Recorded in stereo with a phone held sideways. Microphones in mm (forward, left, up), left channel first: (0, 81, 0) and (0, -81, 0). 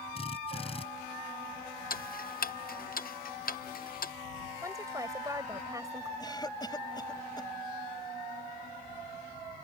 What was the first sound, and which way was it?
A drill, 35° left (ahead or behind).